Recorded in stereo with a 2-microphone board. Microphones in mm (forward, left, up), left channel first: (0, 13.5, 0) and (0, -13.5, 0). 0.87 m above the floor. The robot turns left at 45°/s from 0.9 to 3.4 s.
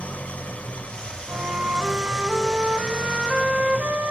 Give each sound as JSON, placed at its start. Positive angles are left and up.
{"t": 0.0, "sound": "an engine running", "azimuth_deg": 55, "distance_m": 1.6}
{"t": 1.3, "sound": "a flute", "azimuth_deg": -55, "distance_m": 3.5}